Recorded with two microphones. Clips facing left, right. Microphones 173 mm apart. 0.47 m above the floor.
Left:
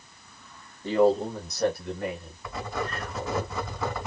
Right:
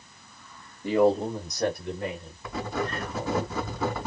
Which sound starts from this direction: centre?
A man speaking, at 0.8 s.